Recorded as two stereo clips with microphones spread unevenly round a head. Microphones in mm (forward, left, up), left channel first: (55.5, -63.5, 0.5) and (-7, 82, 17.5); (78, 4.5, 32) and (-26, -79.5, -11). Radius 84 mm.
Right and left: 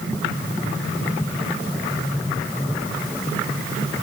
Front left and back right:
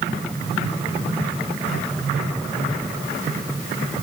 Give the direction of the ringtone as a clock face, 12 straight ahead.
No ringtone in this recording.